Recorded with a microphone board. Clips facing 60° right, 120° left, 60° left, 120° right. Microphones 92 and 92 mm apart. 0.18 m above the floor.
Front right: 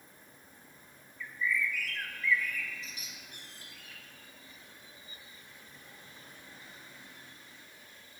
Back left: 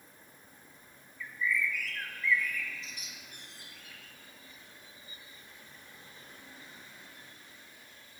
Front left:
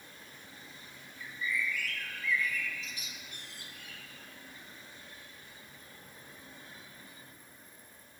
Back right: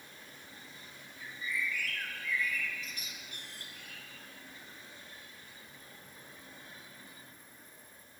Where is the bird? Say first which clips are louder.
Even, front left 2 dB; 145° right, 1.3 m.